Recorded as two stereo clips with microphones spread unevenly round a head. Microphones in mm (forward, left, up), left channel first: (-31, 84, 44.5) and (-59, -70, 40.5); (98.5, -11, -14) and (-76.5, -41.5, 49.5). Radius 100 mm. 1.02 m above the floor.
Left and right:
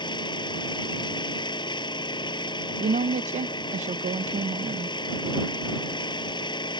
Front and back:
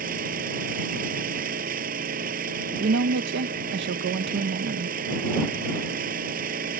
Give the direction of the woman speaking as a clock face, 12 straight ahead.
5 o'clock.